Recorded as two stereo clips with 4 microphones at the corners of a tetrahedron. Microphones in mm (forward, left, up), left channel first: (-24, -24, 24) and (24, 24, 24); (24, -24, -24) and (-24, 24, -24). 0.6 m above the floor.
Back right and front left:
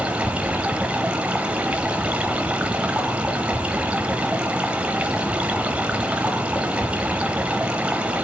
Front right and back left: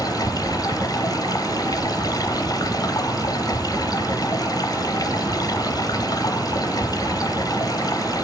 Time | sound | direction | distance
0.0 | running water | 30° right | 1.0 m